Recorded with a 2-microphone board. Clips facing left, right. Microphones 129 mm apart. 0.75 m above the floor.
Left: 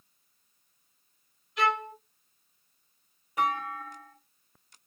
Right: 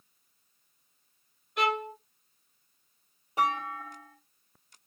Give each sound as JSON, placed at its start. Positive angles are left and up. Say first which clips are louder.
{"t": 1.6, "sound": "a violin", "louder": "left 1 dB", "side_deg": -55, "distance_m": 1.1}
{"t": 3.4, "sound": "a clunk", "louder": "even", "side_deg": -30, "distance_m": 1.2}